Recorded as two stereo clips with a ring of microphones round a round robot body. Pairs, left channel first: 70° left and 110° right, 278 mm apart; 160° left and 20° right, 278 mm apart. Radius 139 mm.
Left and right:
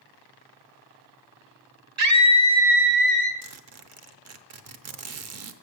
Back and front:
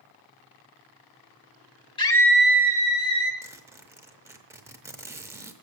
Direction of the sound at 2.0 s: 130° right.